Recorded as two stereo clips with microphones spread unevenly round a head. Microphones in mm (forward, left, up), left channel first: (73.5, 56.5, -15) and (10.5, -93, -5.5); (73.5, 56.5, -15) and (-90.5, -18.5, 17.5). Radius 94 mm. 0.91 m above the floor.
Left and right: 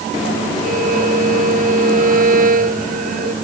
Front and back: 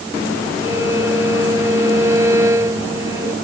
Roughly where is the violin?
Right.